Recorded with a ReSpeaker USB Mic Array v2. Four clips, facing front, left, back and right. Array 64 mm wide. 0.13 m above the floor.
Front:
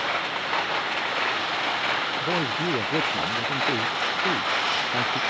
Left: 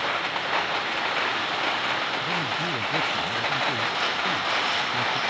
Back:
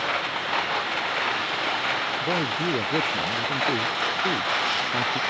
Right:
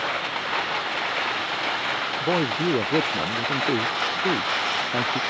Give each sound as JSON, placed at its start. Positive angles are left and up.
{"t": 2.2, "sound": "a man speaking", "azimuth_deg": -95}